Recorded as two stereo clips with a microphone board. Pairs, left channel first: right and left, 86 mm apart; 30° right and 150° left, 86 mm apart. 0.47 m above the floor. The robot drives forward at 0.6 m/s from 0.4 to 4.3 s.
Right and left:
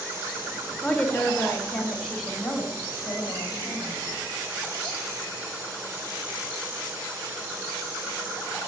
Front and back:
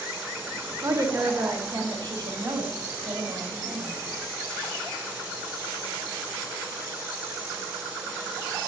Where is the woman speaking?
170° right, 1.4 m; by 3.9 s 175° right, 3 m.